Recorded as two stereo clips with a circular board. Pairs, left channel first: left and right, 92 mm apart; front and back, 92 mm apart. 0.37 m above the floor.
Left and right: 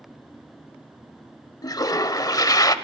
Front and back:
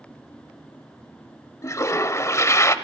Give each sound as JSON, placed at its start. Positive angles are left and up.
{"t": 1.6, "sound": "a toilet flushing", "azimuth_deg": 50, "distance_m": 0.7}